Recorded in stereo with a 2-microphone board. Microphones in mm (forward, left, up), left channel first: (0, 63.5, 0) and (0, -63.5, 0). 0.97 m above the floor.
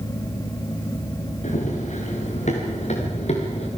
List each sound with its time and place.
1.4 s running footsteps: 70° left (ahead or behind), 5 m; by 3.7 s 55° left (ahead or behind), 5 m